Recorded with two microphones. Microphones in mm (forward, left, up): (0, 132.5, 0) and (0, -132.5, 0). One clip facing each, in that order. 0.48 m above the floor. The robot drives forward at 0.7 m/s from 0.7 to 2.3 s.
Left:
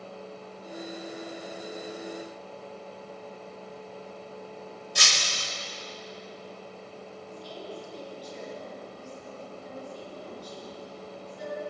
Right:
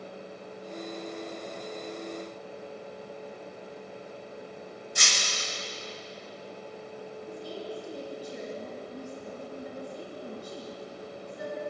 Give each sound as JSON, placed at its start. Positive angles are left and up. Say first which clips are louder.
{"t": 5.0, "sound": "breaking glass", "louder": "even", "side_deg": 75, "distance_m": 1.1}
{"t": 7.3, "sound": "a woman speaking", "louder": "right 3 dB", "side_deg": -60, "distance_m": 6.0}